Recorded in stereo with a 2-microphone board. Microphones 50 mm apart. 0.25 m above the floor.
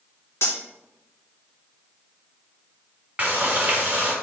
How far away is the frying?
About 1.7 m.